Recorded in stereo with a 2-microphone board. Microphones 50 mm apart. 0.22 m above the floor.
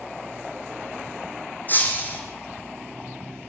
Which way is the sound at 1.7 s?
35° left (ahead or behind).